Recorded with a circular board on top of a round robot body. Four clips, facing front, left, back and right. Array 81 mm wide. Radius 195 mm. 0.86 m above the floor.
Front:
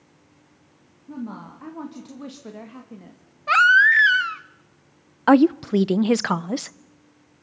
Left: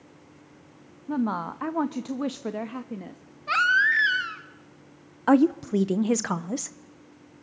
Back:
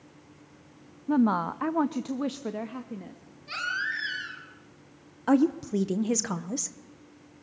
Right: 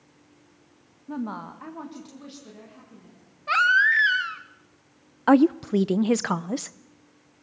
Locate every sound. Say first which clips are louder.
1.1 s a woman speaking: left 5 dB, back 11 dB; 170° left, 1.1 m; by 3.2 s 90° left, 1.6 m
3.5 s a baby crying: right 2 dB, front 17 dB; 5° right, 0.8 m
5.3 s a woman speaking: right 2 dB, front 8 dB; 10° right, 0.7 m